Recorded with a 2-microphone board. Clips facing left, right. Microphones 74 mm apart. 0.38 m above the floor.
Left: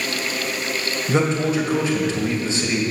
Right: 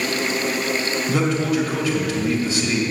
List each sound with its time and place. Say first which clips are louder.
1.1 s a man speaking: left 2 dB; 30° left (ahead or behind), 2 m